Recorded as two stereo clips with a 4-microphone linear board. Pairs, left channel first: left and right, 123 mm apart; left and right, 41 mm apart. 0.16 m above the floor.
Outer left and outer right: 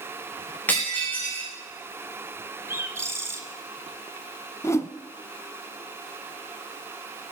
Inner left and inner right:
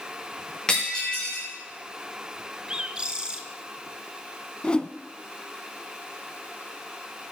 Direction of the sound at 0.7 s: 15° left (ahead or behind).